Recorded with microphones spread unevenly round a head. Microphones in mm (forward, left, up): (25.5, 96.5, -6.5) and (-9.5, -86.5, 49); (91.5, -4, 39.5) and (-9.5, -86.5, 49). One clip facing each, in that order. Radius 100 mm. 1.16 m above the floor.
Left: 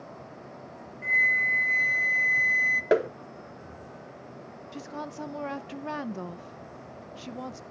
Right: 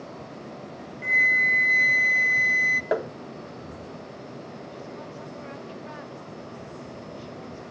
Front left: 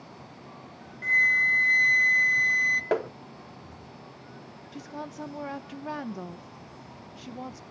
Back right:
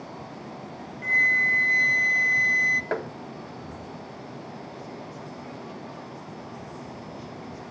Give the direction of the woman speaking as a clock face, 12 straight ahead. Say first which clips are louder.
Even, even; 10 o'clock.